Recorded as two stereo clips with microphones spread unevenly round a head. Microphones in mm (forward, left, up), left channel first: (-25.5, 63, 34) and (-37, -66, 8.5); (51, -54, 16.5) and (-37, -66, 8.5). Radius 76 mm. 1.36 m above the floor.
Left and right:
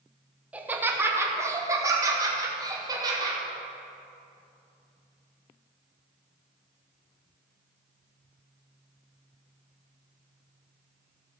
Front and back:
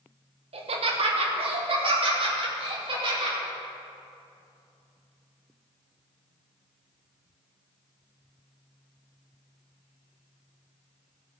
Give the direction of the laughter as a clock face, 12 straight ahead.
6 o'clock.